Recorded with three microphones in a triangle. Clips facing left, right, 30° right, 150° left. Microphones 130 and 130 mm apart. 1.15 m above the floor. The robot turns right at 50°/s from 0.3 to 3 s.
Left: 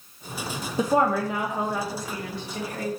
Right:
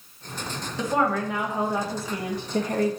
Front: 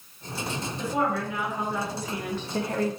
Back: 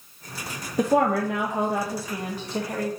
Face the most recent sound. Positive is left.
turn(degrees=-100)